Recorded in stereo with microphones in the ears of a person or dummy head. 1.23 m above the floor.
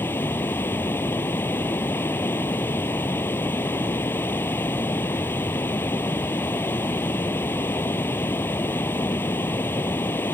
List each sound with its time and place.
0.0 s running water: 10° left (ahead or behind)